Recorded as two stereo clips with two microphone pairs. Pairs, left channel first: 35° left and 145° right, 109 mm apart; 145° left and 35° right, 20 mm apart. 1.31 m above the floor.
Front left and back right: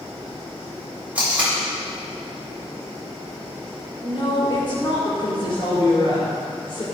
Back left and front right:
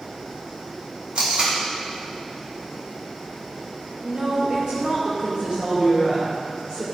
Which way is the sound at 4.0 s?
10° right.